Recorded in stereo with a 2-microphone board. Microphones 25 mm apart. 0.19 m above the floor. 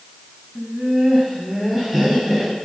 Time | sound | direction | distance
0.6 | laughter | 15° right (ahead or behind) | 1.4 m